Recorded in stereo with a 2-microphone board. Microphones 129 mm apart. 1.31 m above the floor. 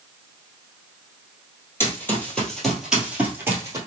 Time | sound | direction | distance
1.8 | running footsteps | 20° left (ahead or behind) | 1.9 m